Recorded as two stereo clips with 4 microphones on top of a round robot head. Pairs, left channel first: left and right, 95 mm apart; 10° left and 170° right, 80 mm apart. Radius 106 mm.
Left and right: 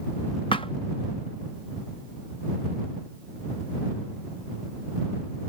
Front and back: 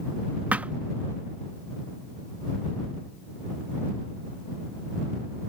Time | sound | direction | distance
0.5 | a thud | 125° left | ?